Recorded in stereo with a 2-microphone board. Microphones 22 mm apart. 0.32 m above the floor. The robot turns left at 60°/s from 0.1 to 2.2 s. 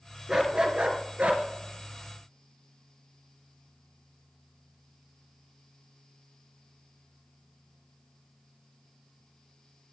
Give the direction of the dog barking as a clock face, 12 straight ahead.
1 o'clock.